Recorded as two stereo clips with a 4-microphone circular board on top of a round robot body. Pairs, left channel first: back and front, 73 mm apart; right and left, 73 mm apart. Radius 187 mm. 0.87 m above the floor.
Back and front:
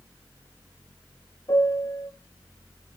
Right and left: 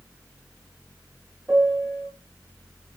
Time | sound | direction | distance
1.5 | a piano | 160° left | 0.8 m